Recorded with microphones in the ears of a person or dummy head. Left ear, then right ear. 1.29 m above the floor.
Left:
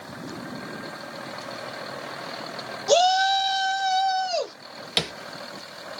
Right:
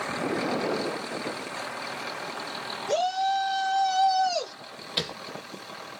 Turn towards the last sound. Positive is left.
turn(degrees=35)  # may be behind; listen again after turning